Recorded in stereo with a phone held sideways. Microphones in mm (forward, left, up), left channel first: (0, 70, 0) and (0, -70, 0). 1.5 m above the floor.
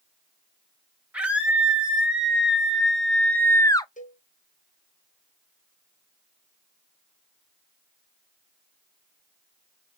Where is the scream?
10° right (ahead or behind), 3 m; by 3.9 s 30° left (ahead or behind), 0.6 m.